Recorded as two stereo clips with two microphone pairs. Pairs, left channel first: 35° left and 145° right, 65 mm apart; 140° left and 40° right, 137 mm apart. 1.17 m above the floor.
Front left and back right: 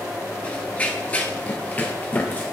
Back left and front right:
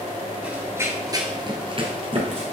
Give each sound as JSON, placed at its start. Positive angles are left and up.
{"t": 0.4, "sound": "running footsteps", "azimuth_deg": 15, "distance_m": 1.1}